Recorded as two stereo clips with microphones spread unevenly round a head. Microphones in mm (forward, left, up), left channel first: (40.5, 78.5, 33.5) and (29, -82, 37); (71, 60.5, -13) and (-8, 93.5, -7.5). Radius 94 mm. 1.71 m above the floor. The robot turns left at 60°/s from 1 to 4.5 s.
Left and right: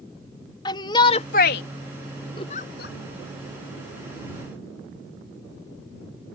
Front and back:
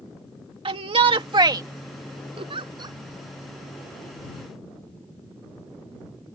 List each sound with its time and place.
0.7 s a shout: 155° left; by 1.6 s 120° left
2.4 s a giggle: 155° left; by 3.0 s 115° left